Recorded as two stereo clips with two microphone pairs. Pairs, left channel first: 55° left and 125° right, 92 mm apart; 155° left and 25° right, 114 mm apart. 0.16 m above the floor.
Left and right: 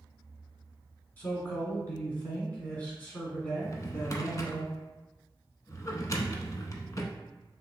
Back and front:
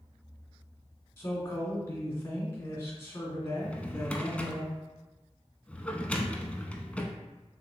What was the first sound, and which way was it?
A man speaking, 115° left.